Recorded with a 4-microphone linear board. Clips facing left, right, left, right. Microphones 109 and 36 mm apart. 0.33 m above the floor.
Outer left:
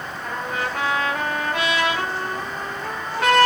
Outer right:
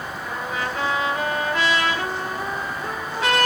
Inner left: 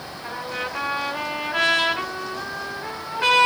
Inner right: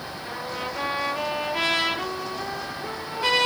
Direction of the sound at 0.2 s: 60° left (ahead or behind).